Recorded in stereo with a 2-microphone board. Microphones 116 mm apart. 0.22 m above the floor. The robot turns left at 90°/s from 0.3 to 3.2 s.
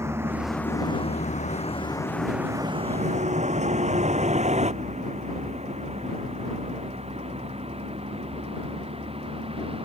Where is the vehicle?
25° right (ahead or behind); by 9.9 s 55° right (ahead or behind).